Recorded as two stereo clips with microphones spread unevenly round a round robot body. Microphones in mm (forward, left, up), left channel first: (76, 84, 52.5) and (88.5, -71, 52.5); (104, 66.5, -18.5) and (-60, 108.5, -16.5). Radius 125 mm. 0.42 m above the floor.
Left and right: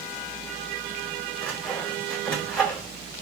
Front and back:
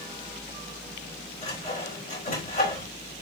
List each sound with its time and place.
1.4 s sawing: 10° left, 4 m